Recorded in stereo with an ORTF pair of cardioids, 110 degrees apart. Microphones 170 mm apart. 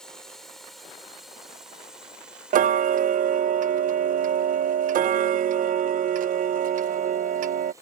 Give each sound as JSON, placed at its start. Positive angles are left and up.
{"t": 0.0, "sound": "a drone", "azimuth_deg": 5}
{"t": 2.5, "sound": "ticking", "azimuth_deg": -55}